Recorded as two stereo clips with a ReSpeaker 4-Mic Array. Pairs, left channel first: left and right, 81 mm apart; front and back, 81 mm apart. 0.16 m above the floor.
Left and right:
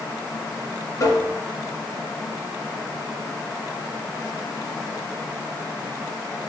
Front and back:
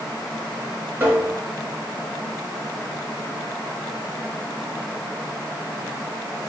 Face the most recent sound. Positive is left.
turn(degrees=125)